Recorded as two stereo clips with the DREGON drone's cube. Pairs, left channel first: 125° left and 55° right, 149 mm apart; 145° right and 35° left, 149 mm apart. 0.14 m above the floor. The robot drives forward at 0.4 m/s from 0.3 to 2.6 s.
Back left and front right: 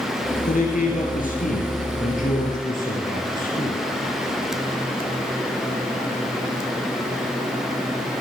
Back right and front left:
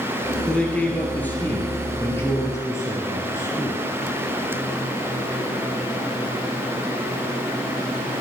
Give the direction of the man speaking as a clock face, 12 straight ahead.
8 o'clock.